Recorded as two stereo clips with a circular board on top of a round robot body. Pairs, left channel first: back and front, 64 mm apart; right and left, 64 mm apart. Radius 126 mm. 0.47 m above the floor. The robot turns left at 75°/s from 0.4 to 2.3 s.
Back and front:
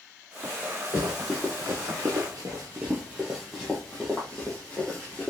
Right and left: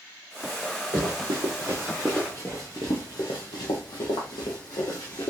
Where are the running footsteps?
130° left, 0.9 m; by 5.3 s 110° right, 1.6 m.